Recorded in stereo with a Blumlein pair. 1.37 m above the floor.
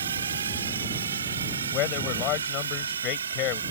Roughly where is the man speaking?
Ahead left.